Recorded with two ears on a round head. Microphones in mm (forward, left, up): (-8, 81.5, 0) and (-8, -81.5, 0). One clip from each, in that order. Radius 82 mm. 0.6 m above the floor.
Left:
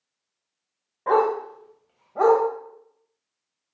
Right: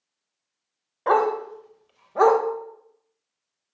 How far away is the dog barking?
About 1.0 m.